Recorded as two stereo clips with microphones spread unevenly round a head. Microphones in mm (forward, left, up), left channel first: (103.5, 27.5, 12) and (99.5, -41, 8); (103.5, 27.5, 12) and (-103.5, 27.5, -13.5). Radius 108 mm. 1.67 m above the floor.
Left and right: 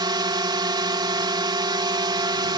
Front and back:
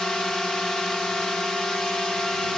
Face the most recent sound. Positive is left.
turn(degrees=-85)